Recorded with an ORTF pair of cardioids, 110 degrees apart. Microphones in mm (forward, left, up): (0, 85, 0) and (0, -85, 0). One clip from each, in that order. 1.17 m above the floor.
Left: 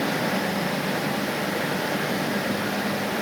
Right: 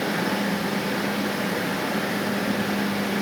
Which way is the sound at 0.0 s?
5° left.